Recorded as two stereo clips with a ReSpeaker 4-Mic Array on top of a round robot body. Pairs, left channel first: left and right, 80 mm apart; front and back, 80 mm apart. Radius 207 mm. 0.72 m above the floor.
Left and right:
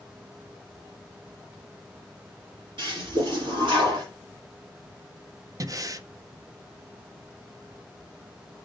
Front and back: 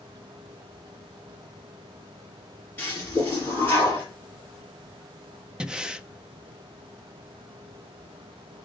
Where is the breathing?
105° right, 0.9 m.